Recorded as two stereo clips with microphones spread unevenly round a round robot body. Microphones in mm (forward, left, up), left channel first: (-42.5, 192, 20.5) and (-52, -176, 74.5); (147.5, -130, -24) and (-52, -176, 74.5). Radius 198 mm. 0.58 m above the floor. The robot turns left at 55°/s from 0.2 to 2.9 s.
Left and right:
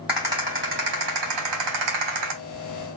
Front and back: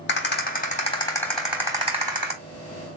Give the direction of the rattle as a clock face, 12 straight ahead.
12 o'clock.